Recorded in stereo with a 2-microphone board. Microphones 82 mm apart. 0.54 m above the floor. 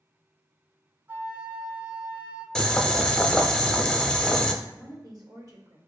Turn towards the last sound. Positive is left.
turn(degrees=-55)  # may be behind; listen again after turning